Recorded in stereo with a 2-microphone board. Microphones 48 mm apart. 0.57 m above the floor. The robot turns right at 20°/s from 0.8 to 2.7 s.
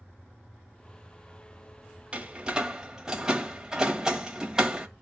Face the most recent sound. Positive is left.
turn(degrees=-10)  # may be behind; listen again after turning